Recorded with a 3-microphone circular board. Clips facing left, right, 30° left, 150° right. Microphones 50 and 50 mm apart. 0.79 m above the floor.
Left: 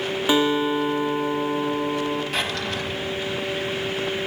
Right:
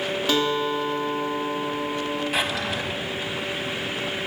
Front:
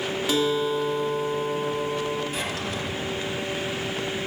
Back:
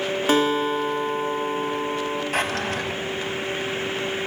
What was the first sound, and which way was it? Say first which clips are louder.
A guitar: left 4 dB, back 3 dB; 165° left.